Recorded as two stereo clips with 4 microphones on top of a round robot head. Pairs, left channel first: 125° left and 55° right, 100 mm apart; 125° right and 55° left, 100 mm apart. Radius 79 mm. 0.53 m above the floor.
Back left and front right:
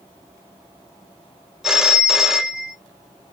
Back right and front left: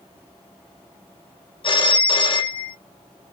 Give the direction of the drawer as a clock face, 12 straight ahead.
I don't hear a drawer.